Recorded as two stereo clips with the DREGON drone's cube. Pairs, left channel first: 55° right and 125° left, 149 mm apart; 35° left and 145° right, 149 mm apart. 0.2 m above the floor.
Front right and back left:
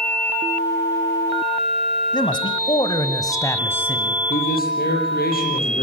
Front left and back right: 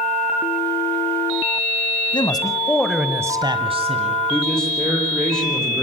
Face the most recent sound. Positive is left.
turn(degrees=-50)